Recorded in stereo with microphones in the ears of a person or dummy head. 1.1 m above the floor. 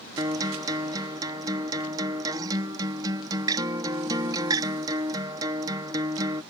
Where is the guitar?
20° right (ahead or behind).